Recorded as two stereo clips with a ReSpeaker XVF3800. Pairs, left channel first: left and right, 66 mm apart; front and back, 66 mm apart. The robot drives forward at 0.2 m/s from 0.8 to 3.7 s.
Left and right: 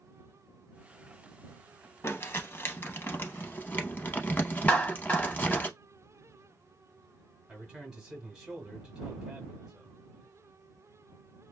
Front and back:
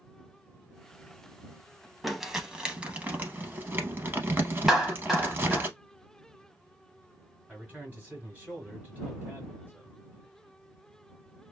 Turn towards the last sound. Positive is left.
turn(degrees=-160)